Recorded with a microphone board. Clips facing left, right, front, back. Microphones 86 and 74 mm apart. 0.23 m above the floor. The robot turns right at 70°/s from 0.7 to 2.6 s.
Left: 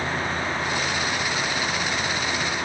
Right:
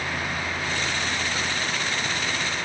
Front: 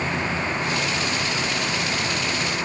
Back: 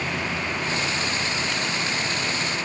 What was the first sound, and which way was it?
Only background noise.